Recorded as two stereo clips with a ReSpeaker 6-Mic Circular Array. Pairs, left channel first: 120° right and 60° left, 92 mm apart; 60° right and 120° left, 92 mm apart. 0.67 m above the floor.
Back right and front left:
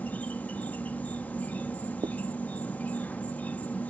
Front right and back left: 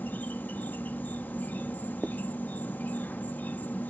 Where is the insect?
85° right.